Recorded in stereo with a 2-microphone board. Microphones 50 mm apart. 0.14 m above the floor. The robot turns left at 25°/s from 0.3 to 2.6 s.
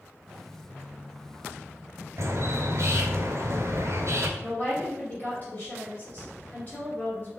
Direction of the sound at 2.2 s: 65° right (ahead or behind).